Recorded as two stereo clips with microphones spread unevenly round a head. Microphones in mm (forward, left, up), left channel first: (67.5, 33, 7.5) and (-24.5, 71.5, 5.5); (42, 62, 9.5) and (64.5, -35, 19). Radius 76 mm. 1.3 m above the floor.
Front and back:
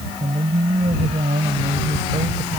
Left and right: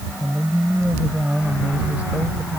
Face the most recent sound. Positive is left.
turn(degrees=-160)